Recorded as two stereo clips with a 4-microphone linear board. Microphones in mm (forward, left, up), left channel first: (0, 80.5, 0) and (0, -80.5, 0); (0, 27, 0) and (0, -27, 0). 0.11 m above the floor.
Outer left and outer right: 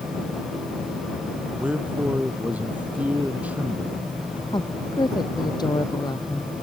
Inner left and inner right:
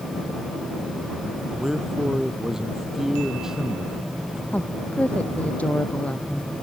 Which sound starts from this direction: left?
A woman speaking, at 4.5 s.